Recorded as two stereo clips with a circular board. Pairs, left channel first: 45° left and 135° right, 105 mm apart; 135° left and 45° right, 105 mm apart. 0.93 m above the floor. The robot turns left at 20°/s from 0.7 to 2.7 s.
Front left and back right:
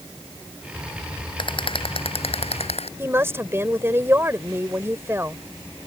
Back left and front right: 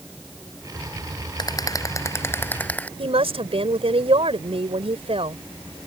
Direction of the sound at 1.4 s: 85° left.